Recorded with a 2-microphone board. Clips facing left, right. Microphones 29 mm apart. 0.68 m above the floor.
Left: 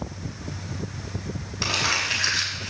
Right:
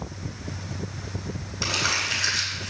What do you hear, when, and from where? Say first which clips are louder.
1.6 s crumpling: left 1 dB; 20° left (ahead or behind), 5.5 m